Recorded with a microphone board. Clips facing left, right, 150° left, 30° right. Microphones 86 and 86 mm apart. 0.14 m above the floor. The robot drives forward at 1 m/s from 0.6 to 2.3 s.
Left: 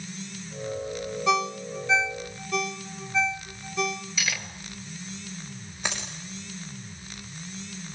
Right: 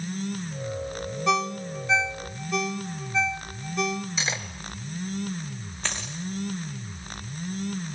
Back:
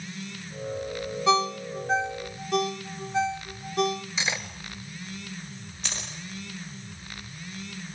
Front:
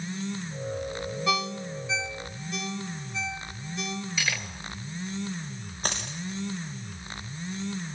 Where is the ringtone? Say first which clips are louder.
Even, back 7 dB; 175° left, 0.5 m; by 4.1 s straight behind, 1.4 m.